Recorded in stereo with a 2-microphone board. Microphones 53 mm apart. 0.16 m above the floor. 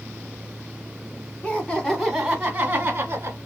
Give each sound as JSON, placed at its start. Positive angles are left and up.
{"t": 1.4, "sound": "laughter", "side_deg": 25, "distance_m": 1.2}